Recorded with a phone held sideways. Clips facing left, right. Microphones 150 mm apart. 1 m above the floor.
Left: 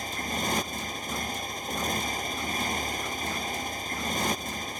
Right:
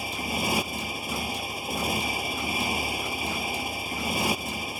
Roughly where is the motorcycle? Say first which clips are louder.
Right 2 dB; centre.